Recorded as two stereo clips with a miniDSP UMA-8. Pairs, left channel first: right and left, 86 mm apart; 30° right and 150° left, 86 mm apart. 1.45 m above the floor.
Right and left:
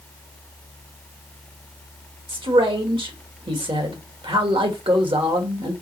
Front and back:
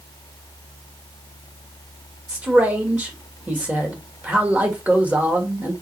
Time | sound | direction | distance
2.3 | a man speaking | 80° left | 2 m